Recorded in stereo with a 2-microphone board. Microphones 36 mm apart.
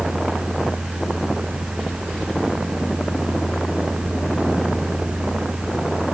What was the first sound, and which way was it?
Only background noise.